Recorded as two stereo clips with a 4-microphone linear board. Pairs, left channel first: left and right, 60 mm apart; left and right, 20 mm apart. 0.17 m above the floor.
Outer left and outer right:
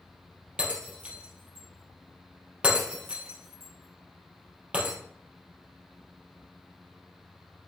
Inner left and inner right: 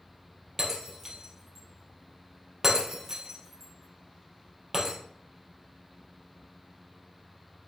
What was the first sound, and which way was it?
Breaking glass, 20° right (ahead or behind).